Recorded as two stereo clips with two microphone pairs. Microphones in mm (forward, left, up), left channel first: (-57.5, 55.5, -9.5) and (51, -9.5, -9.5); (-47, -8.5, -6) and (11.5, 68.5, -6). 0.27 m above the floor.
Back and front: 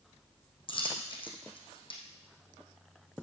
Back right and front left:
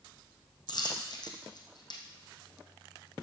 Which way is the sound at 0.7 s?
165° right.